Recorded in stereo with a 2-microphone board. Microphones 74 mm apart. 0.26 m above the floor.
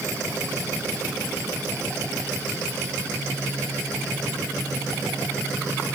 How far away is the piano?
I don't hear a piano.